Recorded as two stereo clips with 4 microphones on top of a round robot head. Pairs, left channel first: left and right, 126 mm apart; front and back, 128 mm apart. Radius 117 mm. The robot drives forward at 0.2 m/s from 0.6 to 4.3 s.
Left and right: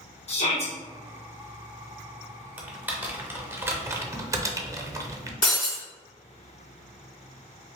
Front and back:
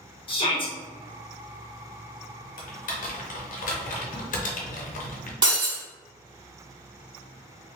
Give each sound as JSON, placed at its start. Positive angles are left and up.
{"t": 0.3, "sound": "a shout", "azimuth_deg": 50, "distance_m": 1.2}
{"t": 2.6, "sound": "typing on a keyboard", "azimuth_deg": -10, "distance_m": 0.8}
{"t": 5.4, "sound": "breaking glass", "azimuth_deg": 135, "distance_m": 2.0}